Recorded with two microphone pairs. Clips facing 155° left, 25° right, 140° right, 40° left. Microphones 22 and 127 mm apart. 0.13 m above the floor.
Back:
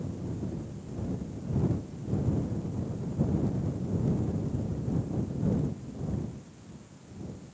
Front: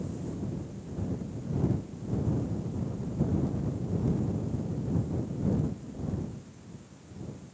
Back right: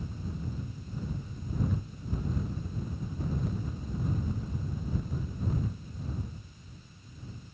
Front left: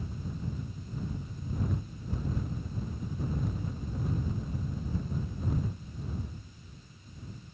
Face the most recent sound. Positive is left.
No sound to turn to.